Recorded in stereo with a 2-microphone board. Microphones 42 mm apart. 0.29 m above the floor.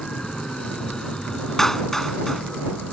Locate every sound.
0.0 s an aircraft: 15° left (ahead or behind)
1.6 s a clap: 10° left (ahead or behind)